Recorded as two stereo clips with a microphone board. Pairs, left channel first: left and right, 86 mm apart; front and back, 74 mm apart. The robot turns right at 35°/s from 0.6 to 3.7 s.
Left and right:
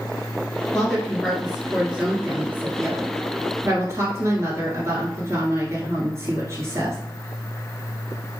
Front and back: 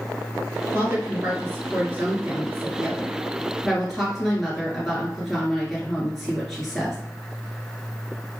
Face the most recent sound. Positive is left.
turn(degrees=-95)